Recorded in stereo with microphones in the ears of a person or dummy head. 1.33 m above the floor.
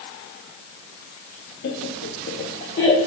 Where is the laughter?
50° left (ahead or behind), 0.6 m; by 3.0 s 30° left (ahead or behind), 1.0 m.